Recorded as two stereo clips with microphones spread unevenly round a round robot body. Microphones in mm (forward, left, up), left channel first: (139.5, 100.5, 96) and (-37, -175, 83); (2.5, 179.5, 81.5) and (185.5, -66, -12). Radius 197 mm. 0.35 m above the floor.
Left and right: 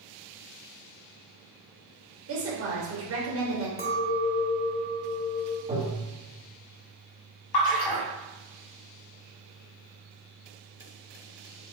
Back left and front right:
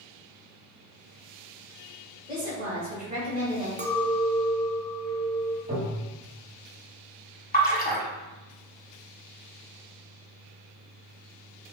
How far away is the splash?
About 1.3 m.